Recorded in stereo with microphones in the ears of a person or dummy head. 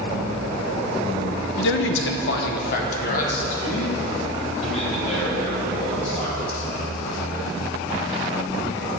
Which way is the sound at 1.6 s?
60° left (ahead or behind).